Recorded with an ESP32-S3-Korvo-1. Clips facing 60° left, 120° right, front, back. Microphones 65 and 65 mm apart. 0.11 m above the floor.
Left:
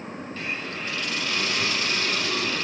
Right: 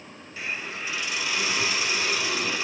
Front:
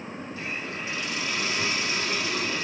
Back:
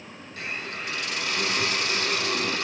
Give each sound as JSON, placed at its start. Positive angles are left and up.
{"t": 0.4, "sound": "a hiss", "azimuth_deg": 160, "distance_m": 4.5}